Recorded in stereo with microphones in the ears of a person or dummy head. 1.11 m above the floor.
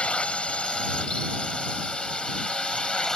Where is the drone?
5° left (ahead or behind); by 3.2 s centre (ahead or behind).